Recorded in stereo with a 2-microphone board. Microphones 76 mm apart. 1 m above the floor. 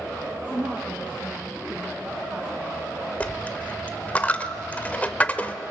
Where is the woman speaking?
20° right (ahead or behind), 1.7 m.